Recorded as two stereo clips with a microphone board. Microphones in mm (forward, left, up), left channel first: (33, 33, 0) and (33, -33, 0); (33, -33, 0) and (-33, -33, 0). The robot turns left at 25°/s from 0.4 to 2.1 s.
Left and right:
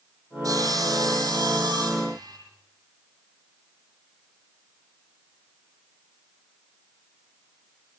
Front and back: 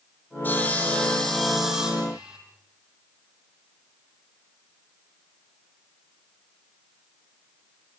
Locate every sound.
0.4 s sawing: 60° right, 8 m; by 2.4 s 105° right, 8 m